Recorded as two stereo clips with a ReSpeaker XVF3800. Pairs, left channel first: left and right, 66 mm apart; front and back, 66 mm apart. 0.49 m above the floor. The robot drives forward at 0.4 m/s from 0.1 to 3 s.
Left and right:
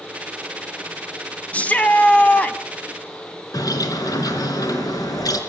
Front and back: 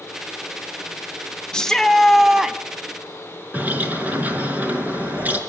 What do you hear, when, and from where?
1.5 s a shout: 60° left, 1.1 m; by 2.6 s 115° left, 1.1 m
3.5 s a bird: 115° left, 4 m